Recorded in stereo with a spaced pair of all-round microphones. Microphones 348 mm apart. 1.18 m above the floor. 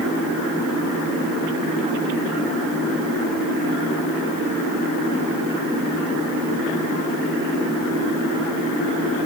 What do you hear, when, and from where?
Only background noise.